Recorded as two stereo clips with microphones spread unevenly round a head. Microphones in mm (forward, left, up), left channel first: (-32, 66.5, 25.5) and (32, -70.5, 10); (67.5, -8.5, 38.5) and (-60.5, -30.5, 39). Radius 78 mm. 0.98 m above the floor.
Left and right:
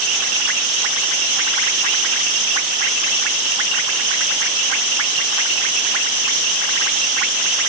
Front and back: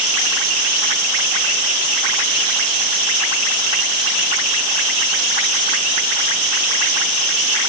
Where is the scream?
No scream in this recording.